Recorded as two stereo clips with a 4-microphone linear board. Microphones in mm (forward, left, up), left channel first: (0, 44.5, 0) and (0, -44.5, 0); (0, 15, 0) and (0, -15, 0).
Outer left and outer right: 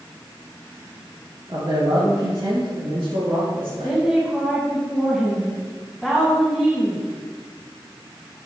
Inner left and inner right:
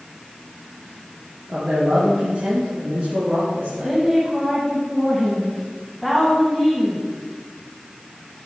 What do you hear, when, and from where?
1.5 s a man speaking: 60° right (ahead or behind), 2.5 m; by 4.0 s 75° right (ahead or behind), 5.5 m
3.8 s a woman speaking: 5° right (ahead or behind), 1.8 m